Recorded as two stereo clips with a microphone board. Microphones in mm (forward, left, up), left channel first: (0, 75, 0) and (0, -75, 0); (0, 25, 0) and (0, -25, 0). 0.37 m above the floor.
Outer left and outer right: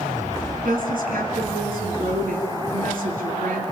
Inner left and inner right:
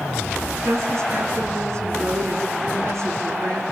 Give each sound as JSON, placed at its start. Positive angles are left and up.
{"t": 0.7, "sound": "a woman speaking", "side_deg": -70, "distance_m": 4.0}